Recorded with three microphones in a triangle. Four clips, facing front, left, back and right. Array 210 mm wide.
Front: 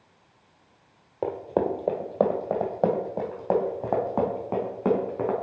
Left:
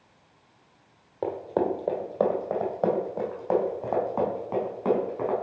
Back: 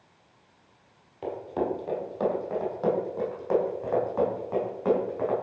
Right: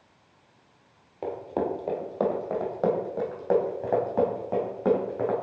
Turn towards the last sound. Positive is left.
turn(degrees=-20)